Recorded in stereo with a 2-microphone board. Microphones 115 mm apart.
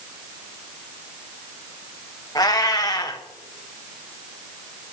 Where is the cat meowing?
30° left (ahead or behind), 1.5 m.